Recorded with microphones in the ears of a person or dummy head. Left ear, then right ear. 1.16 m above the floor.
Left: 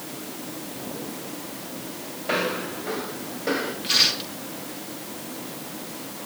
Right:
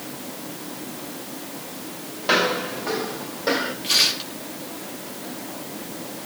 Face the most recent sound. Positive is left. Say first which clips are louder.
# even
turn(degrees=15)  # may be behind; listen again after turning